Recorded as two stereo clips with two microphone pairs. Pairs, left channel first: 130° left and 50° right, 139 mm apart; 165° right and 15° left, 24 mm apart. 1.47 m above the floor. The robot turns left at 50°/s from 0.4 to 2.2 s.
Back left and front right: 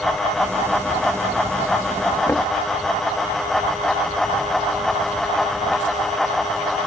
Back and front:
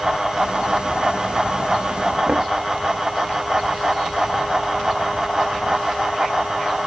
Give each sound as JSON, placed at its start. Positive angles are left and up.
{"t": 2.3, "sound": "knocking", "azimuth_deg": 50}